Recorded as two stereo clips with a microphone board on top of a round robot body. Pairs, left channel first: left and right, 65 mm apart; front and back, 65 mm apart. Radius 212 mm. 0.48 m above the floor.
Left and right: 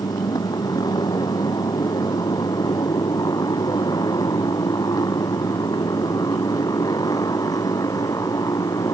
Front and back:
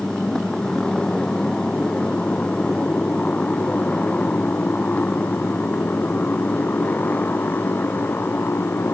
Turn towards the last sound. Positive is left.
turn(degrees=65)